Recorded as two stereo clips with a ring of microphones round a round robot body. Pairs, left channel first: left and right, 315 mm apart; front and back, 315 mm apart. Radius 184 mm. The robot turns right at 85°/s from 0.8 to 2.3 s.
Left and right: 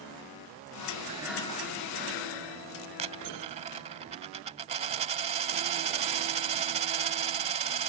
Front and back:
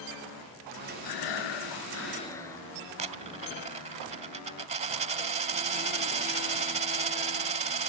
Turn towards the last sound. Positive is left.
turn(degrees=-135)